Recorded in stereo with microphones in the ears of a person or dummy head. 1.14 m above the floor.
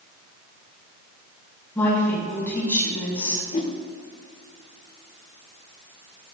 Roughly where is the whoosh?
Left.